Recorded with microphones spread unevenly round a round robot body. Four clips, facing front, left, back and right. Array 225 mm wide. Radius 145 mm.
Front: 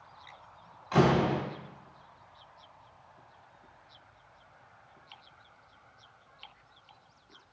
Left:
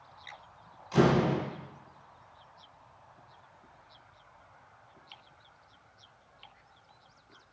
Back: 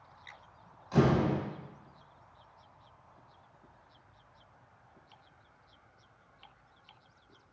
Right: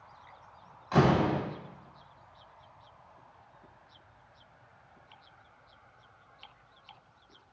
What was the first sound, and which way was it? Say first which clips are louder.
A door slam: even, front 2 dB; 35° right.